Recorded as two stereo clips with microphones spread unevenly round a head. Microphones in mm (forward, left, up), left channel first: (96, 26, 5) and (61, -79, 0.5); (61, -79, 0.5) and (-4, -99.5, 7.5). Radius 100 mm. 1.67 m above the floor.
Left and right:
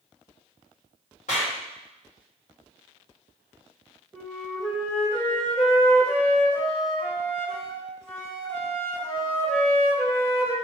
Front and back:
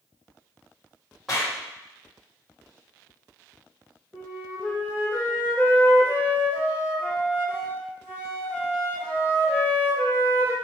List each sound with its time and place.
1.3 s a clap: 110° left, 1.9 m
4.1 s a flute: 150° left, 1.7 m